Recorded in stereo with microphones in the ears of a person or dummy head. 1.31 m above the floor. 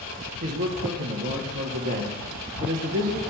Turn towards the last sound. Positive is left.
turn(degrees=-45)  # may be behind; listen again after turning